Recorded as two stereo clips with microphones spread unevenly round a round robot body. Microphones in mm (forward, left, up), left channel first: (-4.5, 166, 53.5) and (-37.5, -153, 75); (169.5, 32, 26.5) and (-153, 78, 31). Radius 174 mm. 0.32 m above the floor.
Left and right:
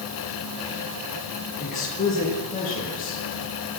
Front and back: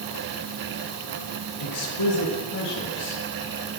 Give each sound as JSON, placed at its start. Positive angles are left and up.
{"t": 1.6, "sound": "a woman speaking", "azimuth_deg": 15, "distance_m": 9.0}